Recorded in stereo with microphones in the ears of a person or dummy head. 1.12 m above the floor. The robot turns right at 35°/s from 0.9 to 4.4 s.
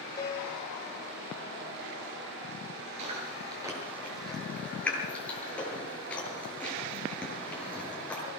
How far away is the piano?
About 5 m.